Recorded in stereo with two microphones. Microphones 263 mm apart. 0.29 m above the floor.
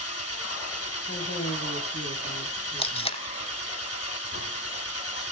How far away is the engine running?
About 1.5 m.